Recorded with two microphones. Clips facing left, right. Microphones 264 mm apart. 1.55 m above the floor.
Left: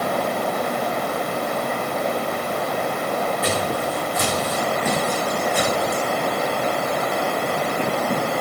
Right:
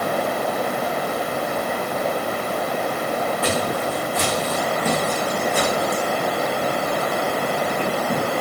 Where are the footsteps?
35° right (ahead or behind), 7 m; by 6.0 s 45° right (ahead or behind), 6 m.